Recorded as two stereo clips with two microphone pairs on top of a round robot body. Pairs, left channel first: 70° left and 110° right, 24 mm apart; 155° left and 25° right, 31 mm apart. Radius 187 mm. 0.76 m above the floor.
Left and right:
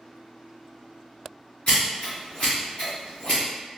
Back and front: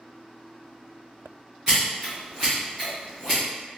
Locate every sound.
1.7 s scissors: 40° left, 0.5 m